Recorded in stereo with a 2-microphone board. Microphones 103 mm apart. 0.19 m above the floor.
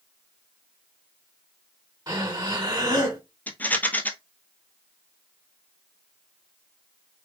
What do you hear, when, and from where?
2.1 s breathing: 35° right (ahead or behind), 2.5 m
3.5 s a rattle: 15° left (ahead or behind), 0.8 m